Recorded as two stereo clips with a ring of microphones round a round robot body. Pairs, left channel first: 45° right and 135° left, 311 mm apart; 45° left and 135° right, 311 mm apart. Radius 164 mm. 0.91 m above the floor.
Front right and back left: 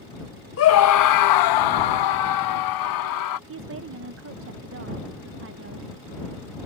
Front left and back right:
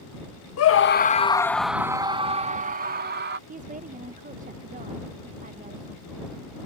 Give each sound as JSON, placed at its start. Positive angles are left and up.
{"t": 0.6, "sound": "a scream", "azimuth_deg": 5}
{"t": 3.5, "sound": "a woman speaking", "azimuth_deg": 165}